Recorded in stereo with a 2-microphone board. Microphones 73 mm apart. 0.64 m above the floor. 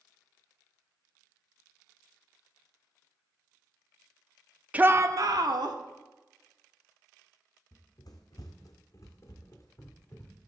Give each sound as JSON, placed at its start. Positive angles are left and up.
{"t": 4.7, "sound": "a shout", "side_deg": -20, "distance_m": 0.6}
{"t": 7.7, "sound": "running footsteps", "side_deg": 65, "distance_m": 1.5}